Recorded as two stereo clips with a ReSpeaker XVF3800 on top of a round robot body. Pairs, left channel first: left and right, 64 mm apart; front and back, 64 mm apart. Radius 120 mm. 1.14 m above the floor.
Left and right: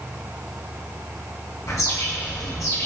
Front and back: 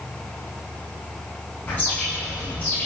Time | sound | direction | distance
1.7 | a bird | 60° left | 6.5 m